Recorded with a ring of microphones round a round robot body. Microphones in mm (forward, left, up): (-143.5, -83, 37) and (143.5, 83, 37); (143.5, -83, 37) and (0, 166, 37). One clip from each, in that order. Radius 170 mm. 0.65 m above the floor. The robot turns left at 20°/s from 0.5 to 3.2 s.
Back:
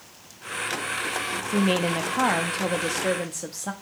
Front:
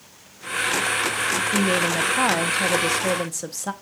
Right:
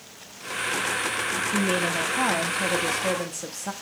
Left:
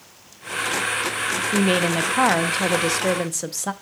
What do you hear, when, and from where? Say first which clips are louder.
1.5 s a woman speaking: even, left 5 dB; 125° left, 0.6 m; by 3.7 s 90° left, 0.6 m